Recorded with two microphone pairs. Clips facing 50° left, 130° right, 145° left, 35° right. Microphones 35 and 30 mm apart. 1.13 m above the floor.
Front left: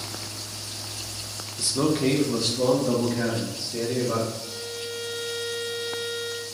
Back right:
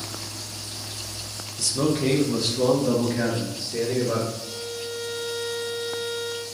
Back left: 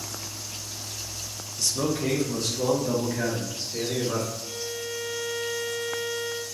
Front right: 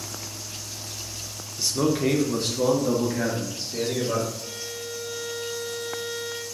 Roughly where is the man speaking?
Ahead.